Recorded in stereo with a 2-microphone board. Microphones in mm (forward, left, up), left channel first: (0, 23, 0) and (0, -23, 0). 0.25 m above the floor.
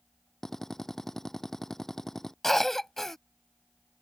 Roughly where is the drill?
Centre.